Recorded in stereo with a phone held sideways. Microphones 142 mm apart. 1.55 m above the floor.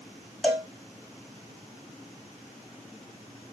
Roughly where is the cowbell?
Centre.